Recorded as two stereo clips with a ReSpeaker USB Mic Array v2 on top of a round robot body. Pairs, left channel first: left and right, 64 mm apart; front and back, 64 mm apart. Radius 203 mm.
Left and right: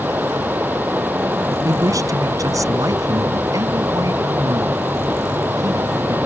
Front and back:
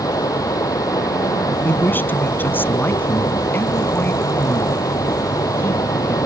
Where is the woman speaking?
60° right.